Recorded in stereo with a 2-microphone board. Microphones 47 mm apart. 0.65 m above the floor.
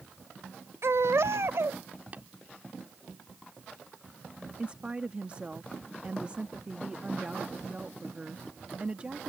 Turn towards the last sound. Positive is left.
turn(degrees=-25)  # may be behind; listen again after turning